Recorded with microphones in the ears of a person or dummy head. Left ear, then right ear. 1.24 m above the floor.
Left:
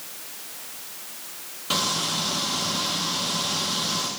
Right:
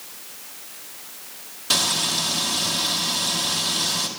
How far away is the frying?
About 1.5 m.